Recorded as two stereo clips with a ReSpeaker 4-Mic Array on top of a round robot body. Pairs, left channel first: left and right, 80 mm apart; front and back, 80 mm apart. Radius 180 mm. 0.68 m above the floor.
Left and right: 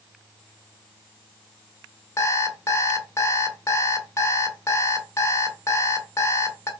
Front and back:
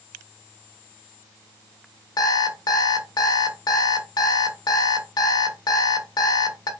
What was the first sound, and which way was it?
An alarm clock, 35° left.